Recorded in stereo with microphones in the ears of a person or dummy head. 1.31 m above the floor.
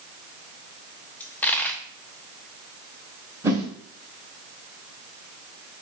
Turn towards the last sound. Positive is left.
turn(degrees=-10)  # may be behind; listen again after turning